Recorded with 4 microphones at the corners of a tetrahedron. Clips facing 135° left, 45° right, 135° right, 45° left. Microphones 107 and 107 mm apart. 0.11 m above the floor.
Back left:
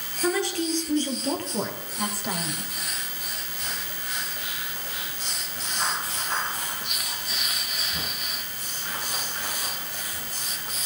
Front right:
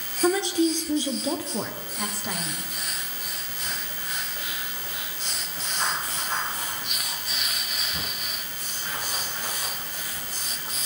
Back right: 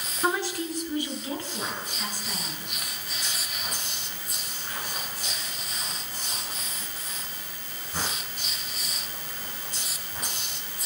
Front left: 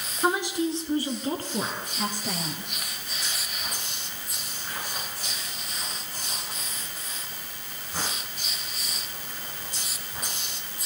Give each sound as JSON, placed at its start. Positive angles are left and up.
{"t": 0.2, "sound": "a woman speaking", "azimuth_deg": -25, "distance_m": 1.8}